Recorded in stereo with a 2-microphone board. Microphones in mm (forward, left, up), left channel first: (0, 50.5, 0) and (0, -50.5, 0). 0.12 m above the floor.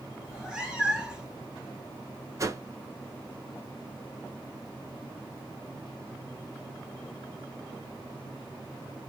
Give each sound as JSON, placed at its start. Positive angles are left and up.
{"t": 0.2, "sound": "a cat meowing", "side_deg": -10, "distance_m": 0.9}
{"t": 2.4, "sound": "a whoosh", "side_deg": -35, "distance_m": 0.6}